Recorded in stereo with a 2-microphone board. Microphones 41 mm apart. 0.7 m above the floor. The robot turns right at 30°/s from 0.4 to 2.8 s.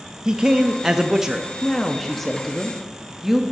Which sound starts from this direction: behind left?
A woman speaking, at 1.6 s.